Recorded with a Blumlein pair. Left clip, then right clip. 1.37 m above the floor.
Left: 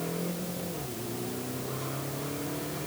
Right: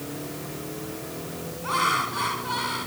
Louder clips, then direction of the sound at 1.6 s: Right 14 dB; 40° right.